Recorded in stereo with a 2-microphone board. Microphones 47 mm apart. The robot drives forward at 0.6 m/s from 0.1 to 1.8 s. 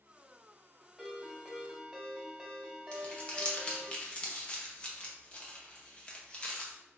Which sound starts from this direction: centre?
A ringtone, at 1.0 s.